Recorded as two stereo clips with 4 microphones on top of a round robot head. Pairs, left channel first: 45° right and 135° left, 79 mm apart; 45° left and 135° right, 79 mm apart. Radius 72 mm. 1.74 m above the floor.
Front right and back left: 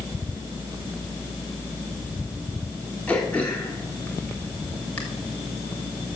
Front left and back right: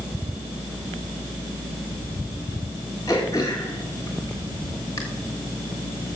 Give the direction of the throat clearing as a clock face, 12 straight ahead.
11 o'clock.